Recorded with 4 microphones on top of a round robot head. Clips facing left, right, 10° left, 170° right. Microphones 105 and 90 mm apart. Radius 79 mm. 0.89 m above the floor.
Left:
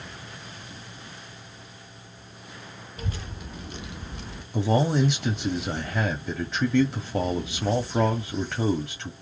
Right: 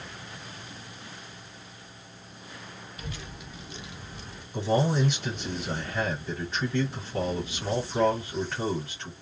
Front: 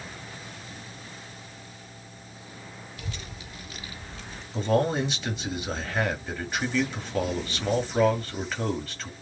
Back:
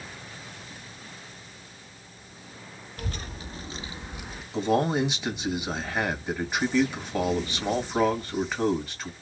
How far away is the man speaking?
About 1.9 m.